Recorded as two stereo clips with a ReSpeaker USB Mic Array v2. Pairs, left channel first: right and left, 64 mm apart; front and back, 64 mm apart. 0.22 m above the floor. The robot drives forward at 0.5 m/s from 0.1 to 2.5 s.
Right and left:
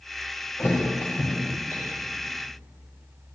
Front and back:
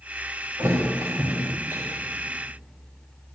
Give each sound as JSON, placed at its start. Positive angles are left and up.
{"t": 0.6, "sound": "a thud", "azimuth_deg": -140, "distance_m": 5.5}